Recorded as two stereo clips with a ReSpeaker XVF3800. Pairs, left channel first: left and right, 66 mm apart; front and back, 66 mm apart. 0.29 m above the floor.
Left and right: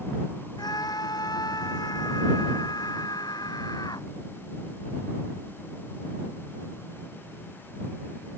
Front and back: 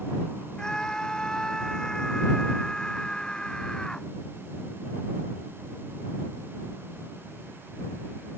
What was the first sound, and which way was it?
A scream, 80° left.